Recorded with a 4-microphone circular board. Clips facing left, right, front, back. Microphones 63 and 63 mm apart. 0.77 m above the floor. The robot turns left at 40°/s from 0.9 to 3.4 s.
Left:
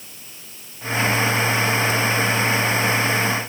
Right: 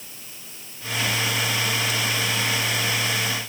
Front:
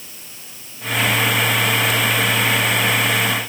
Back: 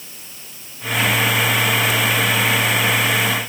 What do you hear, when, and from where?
Only background noise.